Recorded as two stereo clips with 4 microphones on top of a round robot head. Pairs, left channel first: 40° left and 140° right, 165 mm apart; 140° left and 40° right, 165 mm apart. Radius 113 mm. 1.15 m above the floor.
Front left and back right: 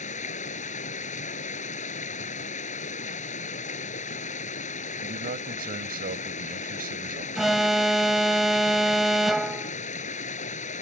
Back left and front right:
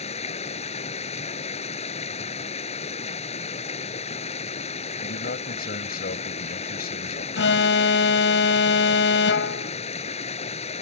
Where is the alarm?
130° left.